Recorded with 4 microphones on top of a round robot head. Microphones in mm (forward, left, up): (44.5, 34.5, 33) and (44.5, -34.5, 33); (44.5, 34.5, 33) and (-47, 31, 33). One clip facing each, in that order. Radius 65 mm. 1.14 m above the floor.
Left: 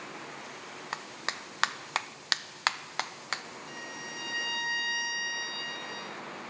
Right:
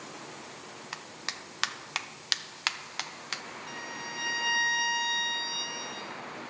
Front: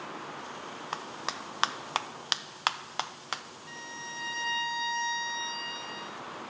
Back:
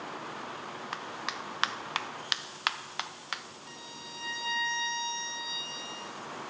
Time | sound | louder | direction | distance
0.9 | a clap | left 5 dB, front 2 dB | 50° left | 0.5 m
3.7 | a violin | right 3 dB, front 4 dB | 100° right | 1.4 m